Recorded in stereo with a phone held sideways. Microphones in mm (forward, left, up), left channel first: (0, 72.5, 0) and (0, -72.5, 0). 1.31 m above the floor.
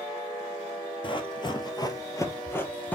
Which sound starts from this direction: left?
Running footsteps, at 1.0 s.